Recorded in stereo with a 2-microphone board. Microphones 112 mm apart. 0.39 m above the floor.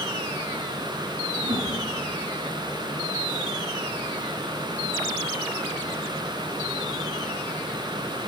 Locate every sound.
1.4 s a whoosh: 70° right (ahead or behind), 6.5 m